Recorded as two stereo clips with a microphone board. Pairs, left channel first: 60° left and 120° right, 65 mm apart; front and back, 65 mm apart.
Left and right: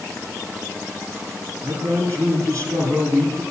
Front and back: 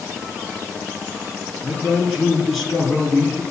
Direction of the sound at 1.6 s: 95° right.